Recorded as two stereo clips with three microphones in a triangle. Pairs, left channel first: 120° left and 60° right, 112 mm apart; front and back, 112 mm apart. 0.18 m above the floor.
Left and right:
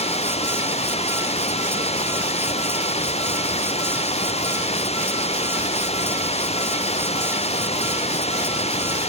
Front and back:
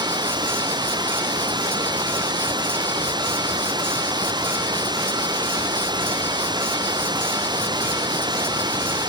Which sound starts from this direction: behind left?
Running water, at 0.0 s.